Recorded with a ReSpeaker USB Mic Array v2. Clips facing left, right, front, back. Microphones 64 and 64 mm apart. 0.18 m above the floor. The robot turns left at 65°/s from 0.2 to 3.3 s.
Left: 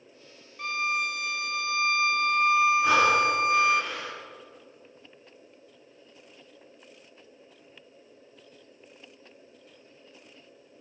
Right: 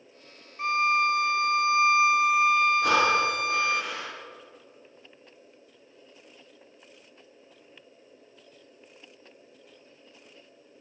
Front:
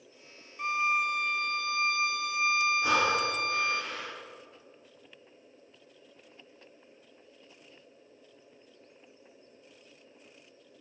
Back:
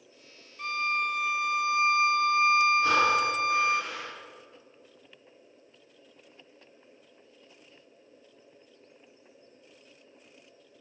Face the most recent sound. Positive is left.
turn(degrees=-100)